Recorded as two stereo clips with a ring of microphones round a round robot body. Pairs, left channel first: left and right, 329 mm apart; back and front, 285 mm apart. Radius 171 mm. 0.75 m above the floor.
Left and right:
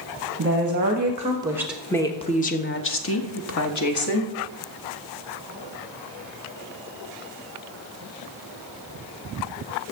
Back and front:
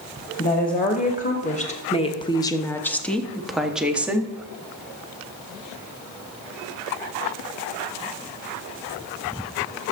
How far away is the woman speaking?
About 1.5 m.